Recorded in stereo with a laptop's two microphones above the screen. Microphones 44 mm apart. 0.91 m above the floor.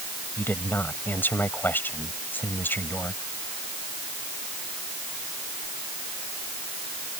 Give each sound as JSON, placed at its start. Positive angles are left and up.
{"t": 0.4, "sound": "a woman speaking", "side_deg": 50}